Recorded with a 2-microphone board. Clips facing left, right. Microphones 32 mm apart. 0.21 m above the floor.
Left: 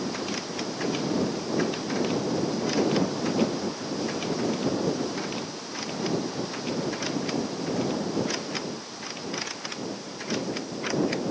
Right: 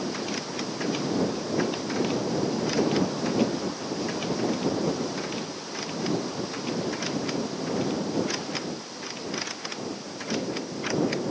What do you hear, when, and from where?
Only background noise.